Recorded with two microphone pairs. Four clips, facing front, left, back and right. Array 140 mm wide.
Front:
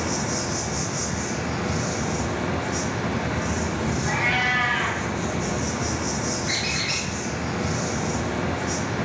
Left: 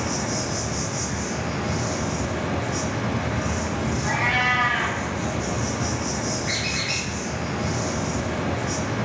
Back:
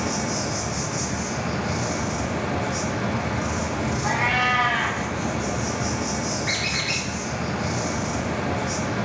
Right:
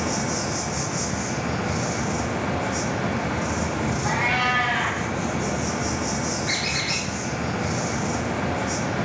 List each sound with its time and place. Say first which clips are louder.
0.0 s an insect: right 1 dB, back 1 dB; 130° right, 2.5 m
4.0 s a cat meowing: even, back 5 dB; 170° right, 3 m
6.5 s a squeak: right 1 dB, even; 175° right, 3.5 m